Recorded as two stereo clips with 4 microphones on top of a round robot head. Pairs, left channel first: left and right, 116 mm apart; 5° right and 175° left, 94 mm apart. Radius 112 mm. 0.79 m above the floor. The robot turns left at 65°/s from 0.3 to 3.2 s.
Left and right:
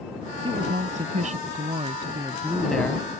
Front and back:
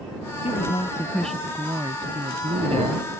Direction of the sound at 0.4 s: 35° right.